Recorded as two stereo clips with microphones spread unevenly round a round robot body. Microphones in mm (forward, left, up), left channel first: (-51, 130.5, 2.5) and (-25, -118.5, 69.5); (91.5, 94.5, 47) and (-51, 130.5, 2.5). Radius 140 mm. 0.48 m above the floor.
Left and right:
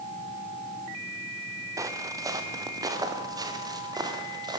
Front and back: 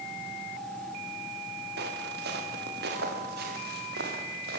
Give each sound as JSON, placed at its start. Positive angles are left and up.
{"t": 1.8, "sound": "footsteps", "azimuth_deg": -160, "distance_m": 3.5}